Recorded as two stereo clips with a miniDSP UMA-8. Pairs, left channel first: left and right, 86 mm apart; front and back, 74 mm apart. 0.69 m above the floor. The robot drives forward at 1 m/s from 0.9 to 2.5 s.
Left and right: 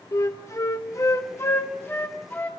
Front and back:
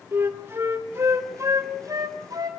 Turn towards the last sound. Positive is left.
turn(degrees=155)